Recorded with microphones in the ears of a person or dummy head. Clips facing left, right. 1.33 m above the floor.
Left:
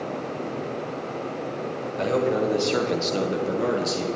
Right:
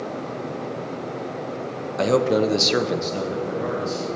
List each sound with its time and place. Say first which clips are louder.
2.0 s a man speaking: right 4 dB; 70° right (ahead or behind), 1.0 m; by 4.0 s 50° left (ahead or behind), 1.5 m